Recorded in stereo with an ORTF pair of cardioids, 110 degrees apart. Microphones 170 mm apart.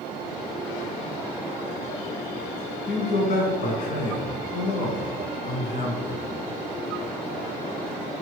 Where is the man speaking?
55° left, 1.0 m.